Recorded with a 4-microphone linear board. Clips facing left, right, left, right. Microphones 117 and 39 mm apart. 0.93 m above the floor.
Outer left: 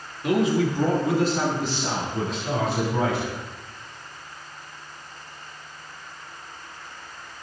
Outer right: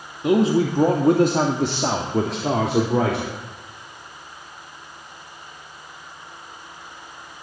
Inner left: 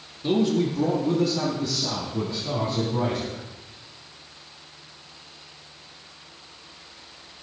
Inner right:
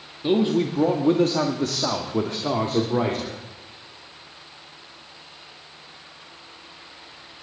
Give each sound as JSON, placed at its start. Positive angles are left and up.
{"t": 0.2, "sound": "a man speaking", "side_deg": -25, "distance_m": 1.9}